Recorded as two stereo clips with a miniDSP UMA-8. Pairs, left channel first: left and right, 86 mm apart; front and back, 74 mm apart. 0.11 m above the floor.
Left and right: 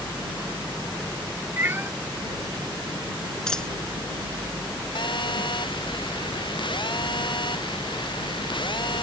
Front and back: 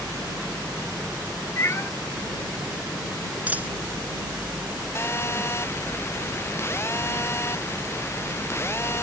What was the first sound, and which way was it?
A cat meowing, 35° right.